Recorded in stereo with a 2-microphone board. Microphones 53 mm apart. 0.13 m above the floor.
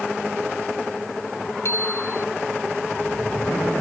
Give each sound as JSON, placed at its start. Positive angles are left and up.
{"t": 1.6, "sound": "a bicycle bell", "side_deg": 55}